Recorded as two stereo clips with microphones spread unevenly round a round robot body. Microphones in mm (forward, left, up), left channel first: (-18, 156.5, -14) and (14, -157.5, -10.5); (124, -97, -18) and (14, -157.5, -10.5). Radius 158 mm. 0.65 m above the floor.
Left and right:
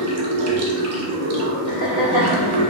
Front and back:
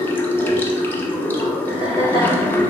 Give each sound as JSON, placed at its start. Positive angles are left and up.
{"t": 0.0, "sound": "running water", "azimuth_deg": -45, "distance_m": 0.8}
{"t": 1.7, "sound": "laughter", "azimuth_deg": 125, "distance_m": 1.8}